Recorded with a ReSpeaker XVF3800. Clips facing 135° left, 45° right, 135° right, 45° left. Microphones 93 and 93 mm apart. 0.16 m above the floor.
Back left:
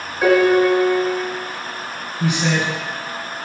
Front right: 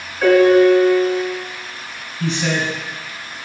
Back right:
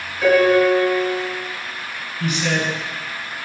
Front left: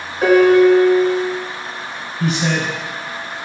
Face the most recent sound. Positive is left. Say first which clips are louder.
# back left 1 dB, front left 2 dB
turn(degrees=70)